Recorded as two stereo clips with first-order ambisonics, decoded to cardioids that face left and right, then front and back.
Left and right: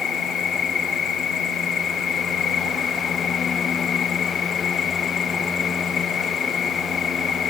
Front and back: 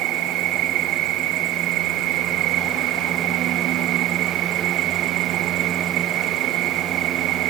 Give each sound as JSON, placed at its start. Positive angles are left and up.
{"t": 0.0, "sound": "an insect", "azimuth_deg": 150}